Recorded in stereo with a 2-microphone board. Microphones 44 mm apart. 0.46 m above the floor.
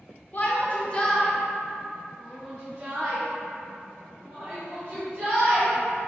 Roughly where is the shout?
Left.